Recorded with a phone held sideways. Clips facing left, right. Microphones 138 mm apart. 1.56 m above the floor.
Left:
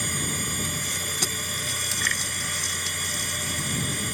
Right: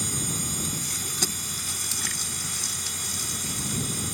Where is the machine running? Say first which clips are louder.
Left 1 dB; 65° left (ahead or behind).